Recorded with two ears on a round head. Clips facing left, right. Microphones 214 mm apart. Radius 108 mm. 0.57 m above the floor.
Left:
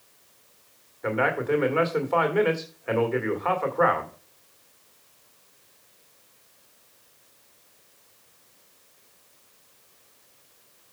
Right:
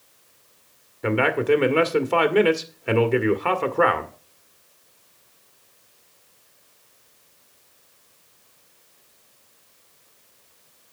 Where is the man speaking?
45° right (ahead or behind), 1.8 m.